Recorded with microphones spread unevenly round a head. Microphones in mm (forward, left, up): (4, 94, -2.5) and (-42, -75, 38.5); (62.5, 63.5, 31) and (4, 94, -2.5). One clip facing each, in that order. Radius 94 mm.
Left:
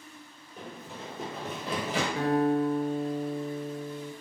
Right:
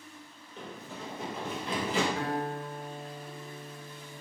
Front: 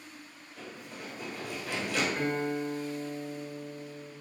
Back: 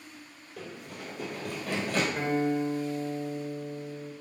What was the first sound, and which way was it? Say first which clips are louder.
Running footsteps: even, back 2 dB; 170° left.